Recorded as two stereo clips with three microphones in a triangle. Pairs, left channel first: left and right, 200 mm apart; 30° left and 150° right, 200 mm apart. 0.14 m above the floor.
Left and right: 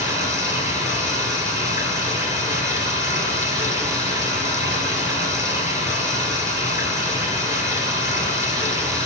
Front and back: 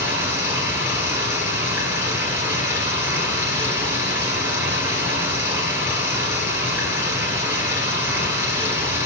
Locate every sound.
0.0 s running water: 135° left, 2.5 m